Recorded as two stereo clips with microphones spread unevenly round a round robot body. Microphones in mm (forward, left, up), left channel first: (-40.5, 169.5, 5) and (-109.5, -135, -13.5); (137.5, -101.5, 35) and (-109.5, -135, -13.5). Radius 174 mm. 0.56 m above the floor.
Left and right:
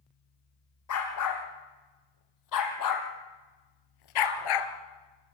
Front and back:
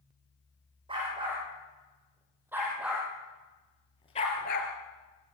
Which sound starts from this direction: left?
A dog barking, at 0.9 s.